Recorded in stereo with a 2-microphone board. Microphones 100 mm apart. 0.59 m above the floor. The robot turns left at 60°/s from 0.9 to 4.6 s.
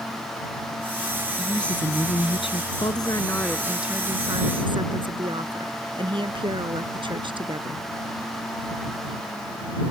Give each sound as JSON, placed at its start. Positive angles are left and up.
{"t": 1.4, "sound": "a woman speaking", "azimuth_deg": -175}
{"t": 2.8, "sound": "a woman speaking", "azimuth_deg": 50}